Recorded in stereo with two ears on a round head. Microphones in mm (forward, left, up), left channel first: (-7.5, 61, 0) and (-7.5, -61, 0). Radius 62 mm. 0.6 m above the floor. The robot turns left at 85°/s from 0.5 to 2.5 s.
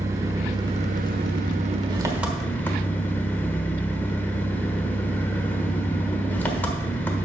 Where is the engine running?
25° right, 1.2 m; by 7.3 s 165° left, 1.2 m.